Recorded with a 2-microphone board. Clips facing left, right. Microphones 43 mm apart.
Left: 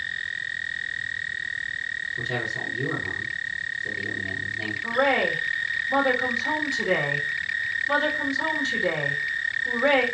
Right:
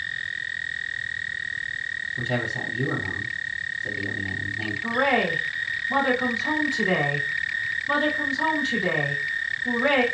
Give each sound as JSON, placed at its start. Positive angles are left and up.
{"t": 2.2, "sound": "a man speaking", "side_deg": -30, "distance_m": 2.5}
{"t": 4.8, "sound": "a woman speaking", "side_deg": -25, "distance_m": 2.5}